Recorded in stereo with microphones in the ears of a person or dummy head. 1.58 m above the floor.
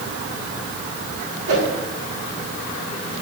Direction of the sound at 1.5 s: 85° right.